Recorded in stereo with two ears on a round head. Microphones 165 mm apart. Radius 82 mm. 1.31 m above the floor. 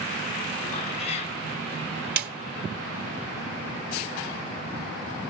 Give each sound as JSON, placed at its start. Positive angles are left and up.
{"t": 0.7, "sound": "a cat meowing", "side_deg": 35, "distance_m": 1.6}
{"t": 2.2, "sound": "a snare drum", "side_deg": -55, "distance_m": 2.0}